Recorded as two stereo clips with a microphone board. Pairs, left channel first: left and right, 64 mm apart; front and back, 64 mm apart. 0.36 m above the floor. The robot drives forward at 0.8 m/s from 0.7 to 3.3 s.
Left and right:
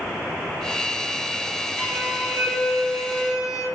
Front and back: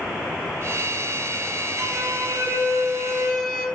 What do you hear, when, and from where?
1.8 s a violin: 155° right, 1.9 m; by 3.6 s 165° right, 3 m